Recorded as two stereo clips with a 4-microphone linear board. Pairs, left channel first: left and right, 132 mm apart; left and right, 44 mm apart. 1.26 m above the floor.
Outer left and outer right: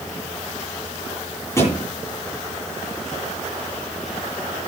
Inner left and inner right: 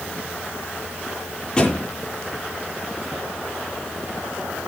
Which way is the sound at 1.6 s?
20° left (ahead or behind).